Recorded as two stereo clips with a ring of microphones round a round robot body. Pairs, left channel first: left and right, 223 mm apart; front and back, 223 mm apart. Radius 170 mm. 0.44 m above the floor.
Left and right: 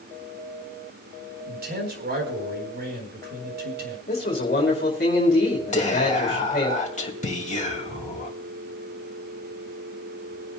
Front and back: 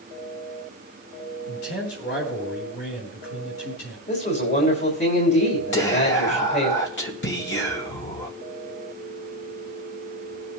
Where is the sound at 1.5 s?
50° right, 4 m.